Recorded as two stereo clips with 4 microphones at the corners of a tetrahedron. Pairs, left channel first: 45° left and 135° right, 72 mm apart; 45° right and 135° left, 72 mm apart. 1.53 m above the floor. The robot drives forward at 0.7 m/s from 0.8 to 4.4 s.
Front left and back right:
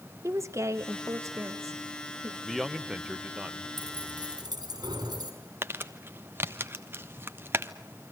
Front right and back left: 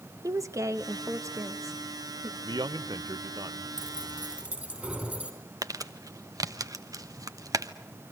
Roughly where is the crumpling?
Behind.